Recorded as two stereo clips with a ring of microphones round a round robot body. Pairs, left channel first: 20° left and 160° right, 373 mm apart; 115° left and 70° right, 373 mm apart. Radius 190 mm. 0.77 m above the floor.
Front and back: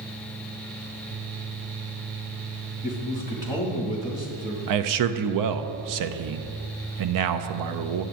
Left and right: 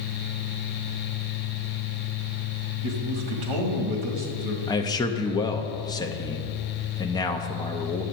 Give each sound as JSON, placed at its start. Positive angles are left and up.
{"t": 2.8, "sound": "a man speaking", "azimuth_deg": -80, "distance_m": 1.8}
{"t": 4.7, "sound": "a man speaking", "azimuth_deg": -170, "distance_m": 0.5}